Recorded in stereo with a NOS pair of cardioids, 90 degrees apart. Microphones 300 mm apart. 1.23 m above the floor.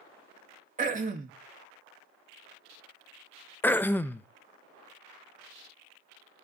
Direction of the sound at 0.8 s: 25° right.